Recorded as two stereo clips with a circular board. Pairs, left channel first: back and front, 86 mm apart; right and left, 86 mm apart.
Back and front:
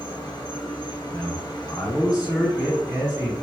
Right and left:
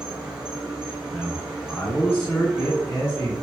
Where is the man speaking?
165° right, 1.6 m.